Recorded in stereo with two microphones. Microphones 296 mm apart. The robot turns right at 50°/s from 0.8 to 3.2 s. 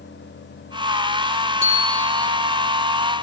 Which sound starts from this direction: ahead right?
A bicycle bell, at 1.6 s.